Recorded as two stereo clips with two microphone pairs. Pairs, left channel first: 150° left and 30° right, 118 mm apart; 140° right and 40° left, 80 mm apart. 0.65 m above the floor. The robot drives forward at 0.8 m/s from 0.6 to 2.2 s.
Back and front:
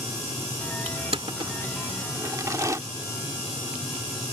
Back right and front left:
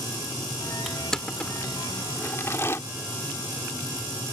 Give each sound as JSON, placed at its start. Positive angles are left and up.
{"t": 0.9, "sound": "crushing", "azimuth_deg": -50}